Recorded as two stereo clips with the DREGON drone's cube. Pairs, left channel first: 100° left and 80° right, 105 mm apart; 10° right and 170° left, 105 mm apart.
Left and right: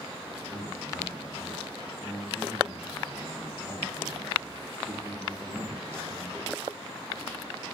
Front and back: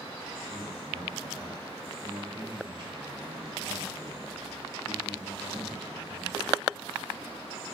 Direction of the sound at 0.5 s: 165° right.